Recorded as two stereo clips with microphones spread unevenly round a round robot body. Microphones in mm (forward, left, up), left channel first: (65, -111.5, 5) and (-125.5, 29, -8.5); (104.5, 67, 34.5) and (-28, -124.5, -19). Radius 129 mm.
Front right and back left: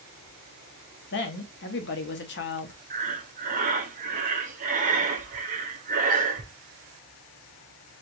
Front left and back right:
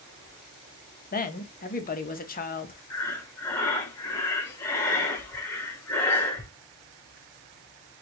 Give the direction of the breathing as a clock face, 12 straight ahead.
7 o'clock.